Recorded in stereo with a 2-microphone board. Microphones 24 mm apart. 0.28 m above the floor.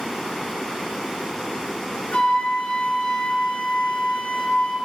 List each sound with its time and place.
2.1 s a flute: 80° left, 0.7 m